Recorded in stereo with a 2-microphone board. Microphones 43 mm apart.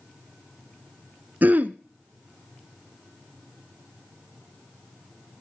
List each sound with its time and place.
1.4 s throat clearing: 45° right (ahead or behind), 0.6 m